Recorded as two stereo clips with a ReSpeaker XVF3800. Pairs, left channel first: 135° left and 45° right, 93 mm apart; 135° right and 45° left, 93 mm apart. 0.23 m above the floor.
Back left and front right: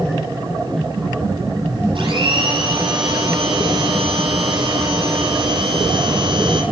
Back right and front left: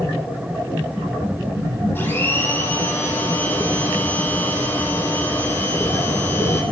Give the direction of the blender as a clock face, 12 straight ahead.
2 o'clock.